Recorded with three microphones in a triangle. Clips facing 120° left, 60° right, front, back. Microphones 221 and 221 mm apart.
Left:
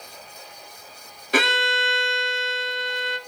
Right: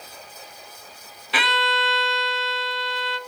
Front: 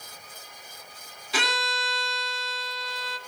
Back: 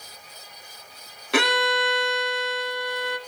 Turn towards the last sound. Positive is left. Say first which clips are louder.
# left 3 dB, back 9 dB
turn(degrees=160)